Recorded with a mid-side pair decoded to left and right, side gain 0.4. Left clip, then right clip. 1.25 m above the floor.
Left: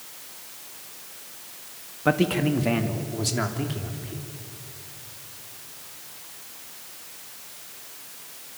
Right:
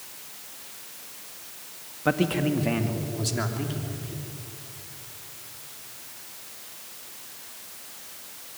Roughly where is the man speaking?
Ahead.